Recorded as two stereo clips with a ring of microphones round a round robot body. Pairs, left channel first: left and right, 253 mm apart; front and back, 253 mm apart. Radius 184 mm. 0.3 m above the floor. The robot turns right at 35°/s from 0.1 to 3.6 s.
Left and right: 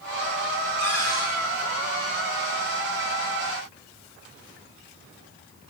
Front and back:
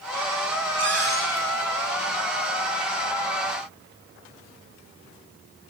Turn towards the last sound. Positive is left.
turn(degrees=-45)